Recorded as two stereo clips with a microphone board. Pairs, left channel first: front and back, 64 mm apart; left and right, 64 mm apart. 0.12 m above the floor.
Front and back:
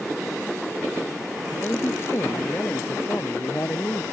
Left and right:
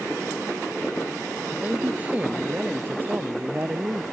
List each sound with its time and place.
1.6 s a man speaking: 30° right; by 4.0 s 40° right